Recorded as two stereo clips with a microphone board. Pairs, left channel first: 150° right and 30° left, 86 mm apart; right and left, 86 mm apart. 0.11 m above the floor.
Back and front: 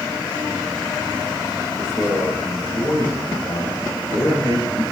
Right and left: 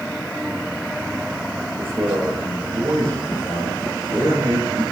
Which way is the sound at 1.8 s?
155° left.